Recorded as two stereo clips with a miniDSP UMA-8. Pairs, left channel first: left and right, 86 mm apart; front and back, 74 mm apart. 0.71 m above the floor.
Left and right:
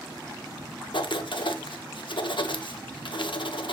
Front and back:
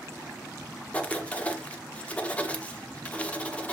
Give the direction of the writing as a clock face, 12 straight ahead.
10 o'clock.